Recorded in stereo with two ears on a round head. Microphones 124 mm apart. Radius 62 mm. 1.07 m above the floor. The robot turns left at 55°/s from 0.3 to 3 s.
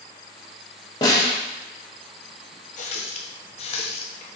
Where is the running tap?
55° left (ahead or behind), 0.6 m; by 4.4 s 45° left (ahead or behind), 0.6 m.